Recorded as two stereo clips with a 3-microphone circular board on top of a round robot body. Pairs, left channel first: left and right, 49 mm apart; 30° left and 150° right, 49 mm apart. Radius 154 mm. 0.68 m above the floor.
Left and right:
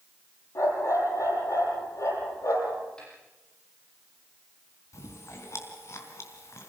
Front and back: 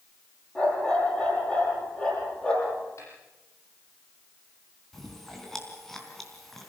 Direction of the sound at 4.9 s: 115° left.